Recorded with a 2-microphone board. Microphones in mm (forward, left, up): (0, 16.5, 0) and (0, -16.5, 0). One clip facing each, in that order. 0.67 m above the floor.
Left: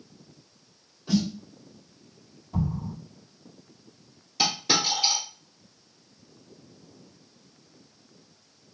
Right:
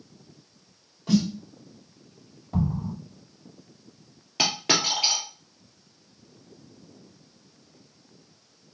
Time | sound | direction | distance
1.1 | a snare drum | 60° right (ahead or behind) | 3 m
2.5 | an explosion | 50° right (ahead or behind) | 1.5 m
4.4 | a dropped coin | 55° right (ahead or behind) | 3 m